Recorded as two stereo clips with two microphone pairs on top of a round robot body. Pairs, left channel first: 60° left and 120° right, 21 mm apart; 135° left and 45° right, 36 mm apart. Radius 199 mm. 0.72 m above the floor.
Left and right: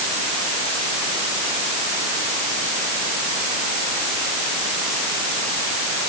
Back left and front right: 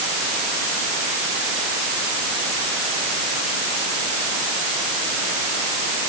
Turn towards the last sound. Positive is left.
No sound to turn to.